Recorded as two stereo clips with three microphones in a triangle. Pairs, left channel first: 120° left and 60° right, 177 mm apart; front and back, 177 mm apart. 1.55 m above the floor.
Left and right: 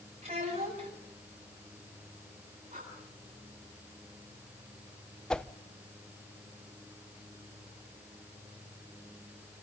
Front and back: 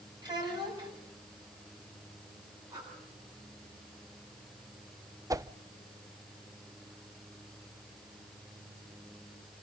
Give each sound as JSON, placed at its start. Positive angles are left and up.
{"t": 0.2, "sound": "a child speaking", "azimuth_deg": -115, "distance_m": 8.0}
{"t": 2.7, "sound": "breathing", "azimuth_deg": -110, "distance_m": 9.5}
{"t": 5.3, "sound": "a whoosh", "azimuth_deg": -165, "distance_m": 0.5}